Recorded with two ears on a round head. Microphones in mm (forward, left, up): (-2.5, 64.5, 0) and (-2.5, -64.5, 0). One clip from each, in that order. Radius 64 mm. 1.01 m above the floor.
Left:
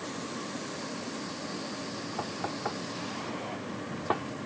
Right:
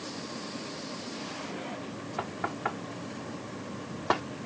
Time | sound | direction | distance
2.2 | knocking | 65° right (ahead or behind) | ?